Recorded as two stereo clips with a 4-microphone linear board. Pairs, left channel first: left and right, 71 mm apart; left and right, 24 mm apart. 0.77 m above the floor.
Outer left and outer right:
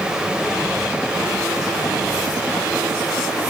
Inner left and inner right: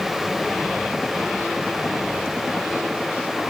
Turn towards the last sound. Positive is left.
No sound to turn to.